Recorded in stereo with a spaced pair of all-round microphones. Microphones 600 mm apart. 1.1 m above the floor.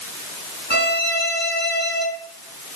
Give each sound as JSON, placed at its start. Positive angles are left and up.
{"t": 0.7, "sound": "a violin", "side_deg": 15, "distance_m": 1.5}